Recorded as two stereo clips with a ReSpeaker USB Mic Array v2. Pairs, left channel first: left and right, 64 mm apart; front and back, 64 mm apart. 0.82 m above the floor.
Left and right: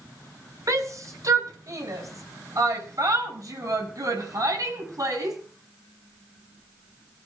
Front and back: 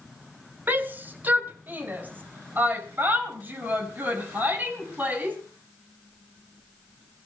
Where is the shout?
125° right, 2.5 m; by 5.4 s 120° right, 6 m.